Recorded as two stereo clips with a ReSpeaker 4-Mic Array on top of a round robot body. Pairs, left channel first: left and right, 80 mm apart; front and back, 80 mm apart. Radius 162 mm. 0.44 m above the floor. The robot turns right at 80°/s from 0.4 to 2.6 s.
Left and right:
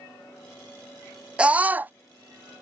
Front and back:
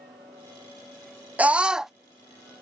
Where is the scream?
145° right; by 1.9 s 100° right.